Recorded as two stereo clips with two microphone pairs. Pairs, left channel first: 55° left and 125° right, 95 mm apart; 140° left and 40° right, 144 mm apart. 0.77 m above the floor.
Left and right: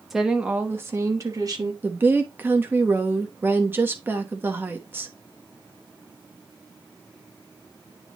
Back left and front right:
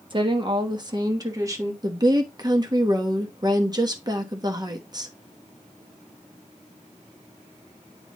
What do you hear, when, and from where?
0.1 s a woman speaking: 40° right, 1.2 m; by 1.7 s 100° right, 1.6 m
1.8 s a woman speaking: 75° right, 1.1 m